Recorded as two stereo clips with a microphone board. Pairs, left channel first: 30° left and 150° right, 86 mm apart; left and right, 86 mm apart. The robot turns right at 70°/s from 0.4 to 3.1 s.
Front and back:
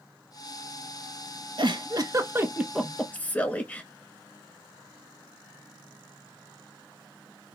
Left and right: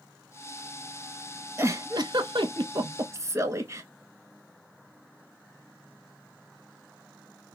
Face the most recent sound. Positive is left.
turn(degrees=-40)